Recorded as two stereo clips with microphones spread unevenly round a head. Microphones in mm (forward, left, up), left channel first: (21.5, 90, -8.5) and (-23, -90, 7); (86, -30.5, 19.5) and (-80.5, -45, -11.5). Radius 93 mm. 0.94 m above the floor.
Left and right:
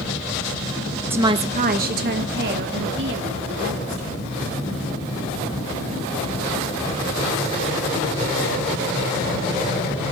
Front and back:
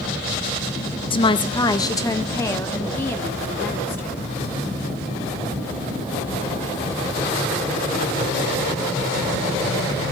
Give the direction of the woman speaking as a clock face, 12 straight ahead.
1 o'clock.